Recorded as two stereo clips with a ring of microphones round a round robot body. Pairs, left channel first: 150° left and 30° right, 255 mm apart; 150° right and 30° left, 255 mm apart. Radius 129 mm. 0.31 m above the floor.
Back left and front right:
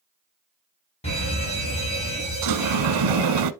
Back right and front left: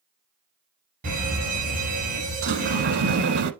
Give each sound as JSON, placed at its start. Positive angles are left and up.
{"t": 1.0, "sound": "a fire alarm", "azimuth_deg": 85, "distance_m": 4.5}
{"t": 2.4, "sound": "a sliding door", "azimuth_deg": -20, "distance_m": 0.6}